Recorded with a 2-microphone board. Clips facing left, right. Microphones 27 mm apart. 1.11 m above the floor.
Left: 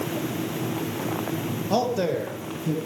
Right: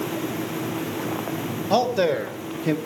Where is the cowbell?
I don't hear a cowbell.